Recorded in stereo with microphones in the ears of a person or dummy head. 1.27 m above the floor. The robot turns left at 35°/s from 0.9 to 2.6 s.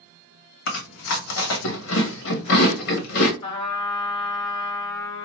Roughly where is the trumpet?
Left.